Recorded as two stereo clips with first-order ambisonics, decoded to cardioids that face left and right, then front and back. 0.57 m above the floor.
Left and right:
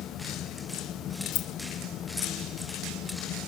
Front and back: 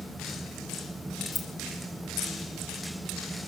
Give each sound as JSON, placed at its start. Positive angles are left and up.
{"t": 1.3, "sound": "keys jangling", "azimuth_deg": 80, "distance_m": 2.5}